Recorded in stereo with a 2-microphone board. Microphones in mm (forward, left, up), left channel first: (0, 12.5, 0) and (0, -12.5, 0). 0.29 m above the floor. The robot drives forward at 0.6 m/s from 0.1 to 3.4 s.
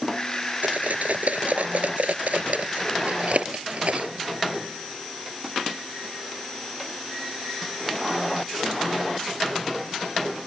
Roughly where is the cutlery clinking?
Right.